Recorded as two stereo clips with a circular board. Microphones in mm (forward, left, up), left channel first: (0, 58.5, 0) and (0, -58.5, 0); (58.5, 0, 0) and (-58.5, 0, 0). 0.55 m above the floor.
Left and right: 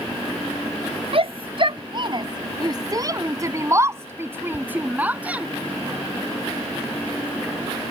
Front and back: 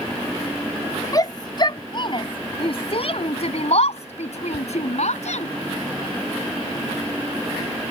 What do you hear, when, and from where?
1.1 s a shout: 55° right; by 5.5 s 10° right